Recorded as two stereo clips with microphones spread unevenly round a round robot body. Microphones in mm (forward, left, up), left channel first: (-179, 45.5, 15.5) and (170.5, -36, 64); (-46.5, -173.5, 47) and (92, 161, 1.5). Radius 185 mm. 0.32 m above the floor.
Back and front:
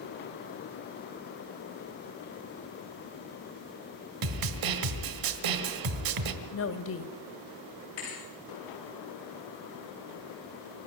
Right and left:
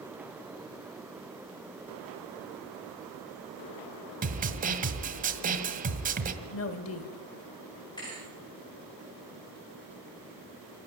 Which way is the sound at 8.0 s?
170° left.